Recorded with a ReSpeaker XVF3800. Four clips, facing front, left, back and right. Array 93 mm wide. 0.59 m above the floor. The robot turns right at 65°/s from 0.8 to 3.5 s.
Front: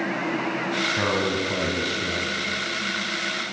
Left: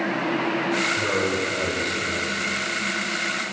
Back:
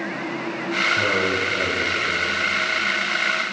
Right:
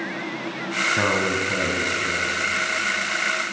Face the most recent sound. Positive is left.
turn(degrees=95)